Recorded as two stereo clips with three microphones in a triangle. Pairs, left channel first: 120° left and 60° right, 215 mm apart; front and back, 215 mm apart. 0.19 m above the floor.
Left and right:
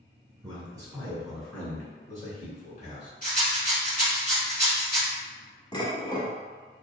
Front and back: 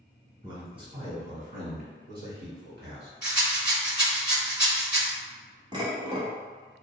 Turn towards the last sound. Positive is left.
turn(degrees=155)